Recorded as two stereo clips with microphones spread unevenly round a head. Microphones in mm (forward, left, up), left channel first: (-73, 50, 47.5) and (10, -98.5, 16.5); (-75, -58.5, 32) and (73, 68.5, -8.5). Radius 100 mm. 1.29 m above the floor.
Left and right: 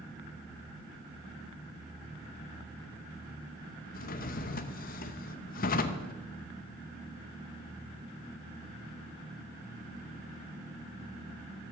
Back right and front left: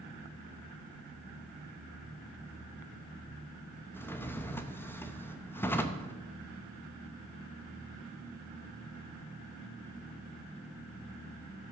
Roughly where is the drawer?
Behind left.